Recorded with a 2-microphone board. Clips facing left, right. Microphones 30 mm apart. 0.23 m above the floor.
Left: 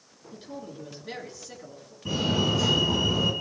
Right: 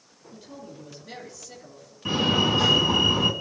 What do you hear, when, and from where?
0.3 s a man speaking: 25° left (ahead or behind), 3 m
2.0 s a fire alarm: 50° right (ahead or behind), 3 m